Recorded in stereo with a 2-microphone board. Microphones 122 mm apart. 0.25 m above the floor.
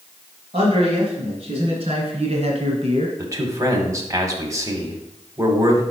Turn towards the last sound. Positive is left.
turn(degrees=-25)  # may be behind; listen again after turning